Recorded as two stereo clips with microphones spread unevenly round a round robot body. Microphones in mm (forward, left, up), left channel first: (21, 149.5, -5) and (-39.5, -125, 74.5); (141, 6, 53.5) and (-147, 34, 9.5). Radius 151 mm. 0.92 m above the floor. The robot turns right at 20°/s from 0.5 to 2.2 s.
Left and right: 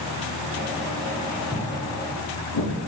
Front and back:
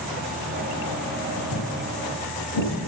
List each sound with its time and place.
1.5 s footsteps: 5° left, 4 m; by 2.7 s 35° left, 4 m